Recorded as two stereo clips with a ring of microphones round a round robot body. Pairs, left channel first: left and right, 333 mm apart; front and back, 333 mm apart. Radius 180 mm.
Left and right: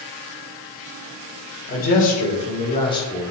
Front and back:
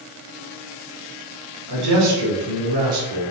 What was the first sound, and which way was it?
A man speaking, 150° left.